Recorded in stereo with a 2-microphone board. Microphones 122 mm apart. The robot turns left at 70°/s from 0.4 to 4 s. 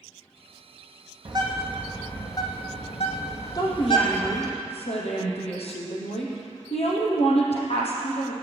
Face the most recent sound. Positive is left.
turn(degrees=110)